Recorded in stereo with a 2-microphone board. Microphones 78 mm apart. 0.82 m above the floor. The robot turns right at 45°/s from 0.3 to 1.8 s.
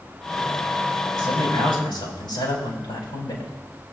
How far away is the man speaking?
About 4.5 m.